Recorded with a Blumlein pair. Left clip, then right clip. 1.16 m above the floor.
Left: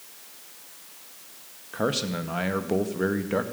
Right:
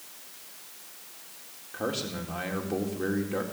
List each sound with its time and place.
1.7 s a man speaking: 45° left, 1.8 m